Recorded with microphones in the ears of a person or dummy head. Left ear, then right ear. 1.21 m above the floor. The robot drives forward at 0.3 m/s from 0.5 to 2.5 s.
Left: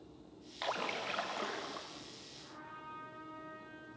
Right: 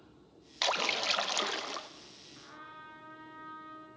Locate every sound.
0.6 s a splash: 85° right, 0.8 m; by 1.9 s 65° right (ahead or behind), 0.9 m
2.4 s a trumpet: 75° right (ahead or behind), 4 m